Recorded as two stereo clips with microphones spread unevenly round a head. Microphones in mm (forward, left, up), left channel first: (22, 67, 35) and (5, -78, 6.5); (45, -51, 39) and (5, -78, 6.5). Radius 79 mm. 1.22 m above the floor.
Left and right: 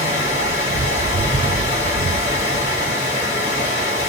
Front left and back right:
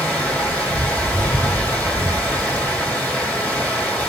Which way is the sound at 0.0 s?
100° left.